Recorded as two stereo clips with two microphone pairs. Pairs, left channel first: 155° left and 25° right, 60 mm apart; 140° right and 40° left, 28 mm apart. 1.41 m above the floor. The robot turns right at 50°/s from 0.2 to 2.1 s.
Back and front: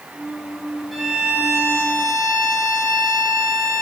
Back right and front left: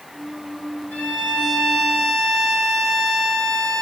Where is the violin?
115° right, 3.5 m; by 3.8 s 55° right, 3.5 m.